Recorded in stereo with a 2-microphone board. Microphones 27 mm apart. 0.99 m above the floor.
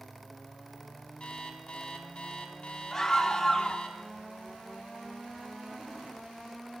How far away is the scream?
About 0.8 m.